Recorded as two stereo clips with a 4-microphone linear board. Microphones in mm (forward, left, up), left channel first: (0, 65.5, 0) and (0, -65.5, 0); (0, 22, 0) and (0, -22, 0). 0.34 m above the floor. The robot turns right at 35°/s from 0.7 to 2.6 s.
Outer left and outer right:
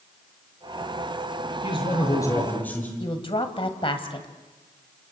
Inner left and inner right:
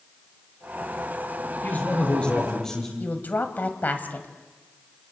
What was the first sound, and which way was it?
A man speaking, 130° left.